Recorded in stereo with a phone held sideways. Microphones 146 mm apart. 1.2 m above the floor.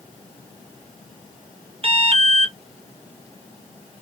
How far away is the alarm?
About 0.9 m.